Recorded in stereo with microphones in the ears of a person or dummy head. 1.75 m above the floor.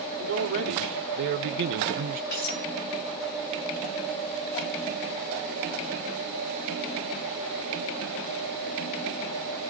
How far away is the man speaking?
About 1.8 m.